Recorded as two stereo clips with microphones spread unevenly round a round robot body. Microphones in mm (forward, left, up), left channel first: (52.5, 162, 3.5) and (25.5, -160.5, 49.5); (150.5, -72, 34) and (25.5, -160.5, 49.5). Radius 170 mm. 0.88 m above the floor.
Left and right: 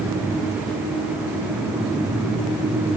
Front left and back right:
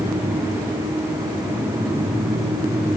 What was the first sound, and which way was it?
Only background noise.